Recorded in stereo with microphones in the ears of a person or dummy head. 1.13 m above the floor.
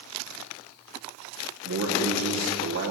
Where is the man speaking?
75° right (ahead or behind), 1.9 m.